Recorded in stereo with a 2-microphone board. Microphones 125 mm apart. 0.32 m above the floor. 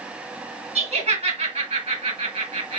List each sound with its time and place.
0.8 s laughter: 60° right (ahead or behind), 3 m